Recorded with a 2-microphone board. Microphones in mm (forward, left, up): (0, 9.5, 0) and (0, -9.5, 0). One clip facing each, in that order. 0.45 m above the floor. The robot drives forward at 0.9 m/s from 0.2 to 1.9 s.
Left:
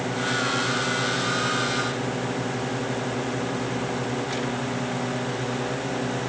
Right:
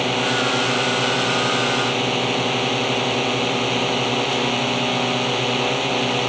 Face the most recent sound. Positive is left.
turn(degrees=-85)